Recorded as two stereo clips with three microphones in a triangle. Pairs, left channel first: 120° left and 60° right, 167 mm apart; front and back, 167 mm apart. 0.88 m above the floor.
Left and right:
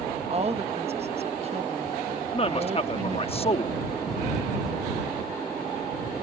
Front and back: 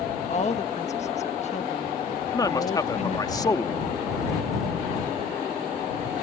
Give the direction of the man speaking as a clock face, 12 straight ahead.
10 o'clock.